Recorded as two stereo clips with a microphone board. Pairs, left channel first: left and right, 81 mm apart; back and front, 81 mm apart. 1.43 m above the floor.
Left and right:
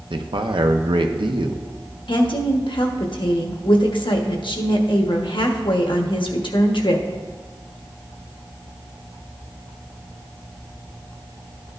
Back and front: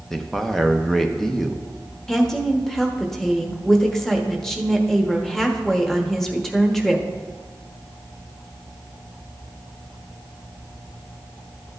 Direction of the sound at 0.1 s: 95° right.